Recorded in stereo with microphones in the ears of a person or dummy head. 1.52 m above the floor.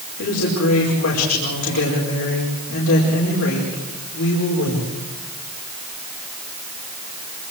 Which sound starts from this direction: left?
A woman speaking, at 0.2 s.